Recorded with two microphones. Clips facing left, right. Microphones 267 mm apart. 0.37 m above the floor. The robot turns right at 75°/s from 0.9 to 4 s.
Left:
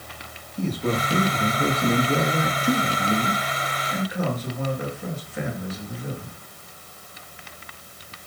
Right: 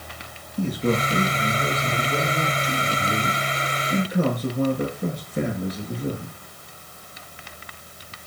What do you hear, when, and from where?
0.6 s a man speaking: 10° right, 6.5 m; by 6.3 s 140° right, 6.5 m